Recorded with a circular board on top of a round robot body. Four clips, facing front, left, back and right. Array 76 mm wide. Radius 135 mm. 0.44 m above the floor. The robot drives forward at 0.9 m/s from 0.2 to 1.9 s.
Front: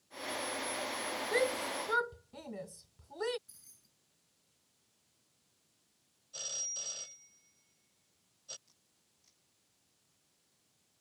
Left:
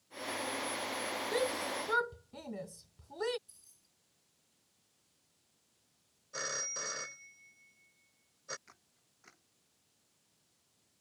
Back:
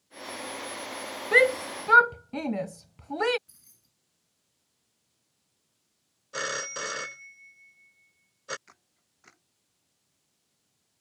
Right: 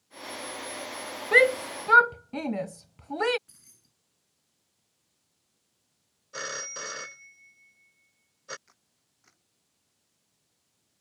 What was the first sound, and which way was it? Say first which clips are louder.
A shout: right 14 dB, back 11 dB; 130° right.